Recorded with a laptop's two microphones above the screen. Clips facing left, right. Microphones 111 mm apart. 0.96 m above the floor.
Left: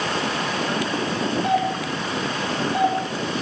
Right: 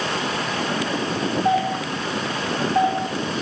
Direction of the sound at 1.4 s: 70° left (ahead or behind).